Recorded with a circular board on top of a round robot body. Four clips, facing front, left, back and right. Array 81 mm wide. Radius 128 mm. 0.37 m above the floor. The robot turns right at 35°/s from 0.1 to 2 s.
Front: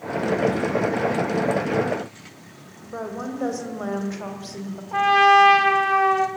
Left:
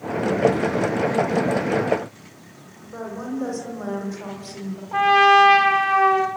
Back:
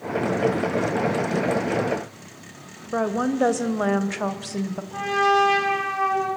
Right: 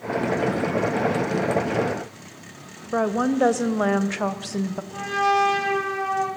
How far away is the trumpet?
About 4 m.